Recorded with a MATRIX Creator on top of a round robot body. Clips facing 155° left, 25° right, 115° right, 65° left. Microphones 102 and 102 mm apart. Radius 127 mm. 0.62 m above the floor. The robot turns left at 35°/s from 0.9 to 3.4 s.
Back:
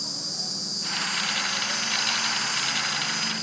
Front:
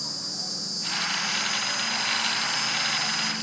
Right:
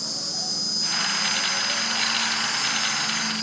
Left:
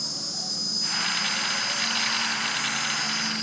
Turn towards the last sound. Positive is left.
turn(degrees=160)